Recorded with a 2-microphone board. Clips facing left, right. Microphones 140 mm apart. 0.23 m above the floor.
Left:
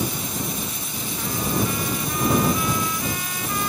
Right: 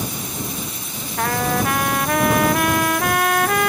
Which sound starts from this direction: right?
A trumpet, at 1.2 s.